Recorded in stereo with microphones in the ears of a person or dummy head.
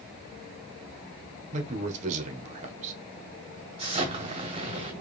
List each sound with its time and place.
1.5 s a man speaking: 35° right (ahead or behind), 1.2 m
3.8 s an explosion: 30° right (ahead or behind), 1.4 m